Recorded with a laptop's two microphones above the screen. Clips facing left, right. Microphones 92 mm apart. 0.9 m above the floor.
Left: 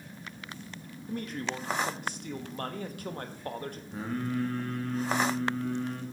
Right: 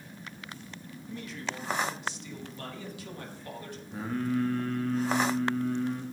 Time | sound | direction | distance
1.1 | a man speaking | 50° left (ahead or behind) | 1.1 m
3.9 | singing | centre (ahead or behind) | 1.9 m